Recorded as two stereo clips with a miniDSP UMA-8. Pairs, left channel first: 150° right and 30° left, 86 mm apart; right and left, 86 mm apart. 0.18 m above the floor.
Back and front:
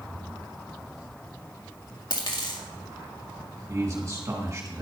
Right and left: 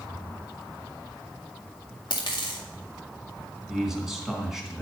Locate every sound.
2.1 s a dropped coin: 120° right, 1.8 m
3.7 s a man speaking: 5° left, 1.9 m